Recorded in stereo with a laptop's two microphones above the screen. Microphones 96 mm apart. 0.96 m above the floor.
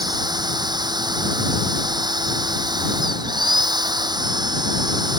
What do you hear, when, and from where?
0.0 s a machine running: 50° right (ahead or behind)